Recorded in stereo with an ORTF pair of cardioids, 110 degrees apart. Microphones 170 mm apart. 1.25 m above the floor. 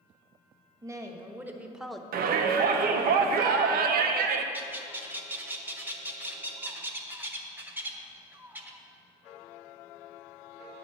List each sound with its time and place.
0.8 s a woman speaking: 20° right, 1.6 m; by 2.0 s 5° left, 0.8 m
2.1 s a shout: 65° right, 1.0 m
4.5 s a bird: 10° right, 1.0 m